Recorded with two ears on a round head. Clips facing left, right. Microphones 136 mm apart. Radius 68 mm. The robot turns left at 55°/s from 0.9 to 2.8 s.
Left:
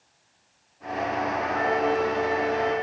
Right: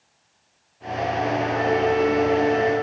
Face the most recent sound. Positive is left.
turn(degrees=75)